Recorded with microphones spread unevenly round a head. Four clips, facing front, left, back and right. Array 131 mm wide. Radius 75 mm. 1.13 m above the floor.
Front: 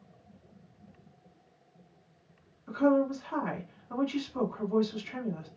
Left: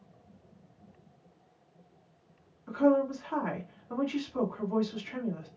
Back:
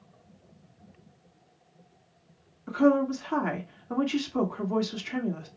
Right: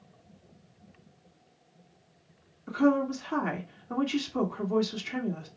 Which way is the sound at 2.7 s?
140° right.